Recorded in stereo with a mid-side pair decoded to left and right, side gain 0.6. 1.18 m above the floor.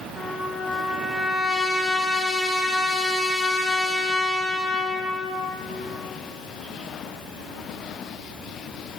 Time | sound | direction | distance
0.2 | a trumpet | straight ahead | 3 m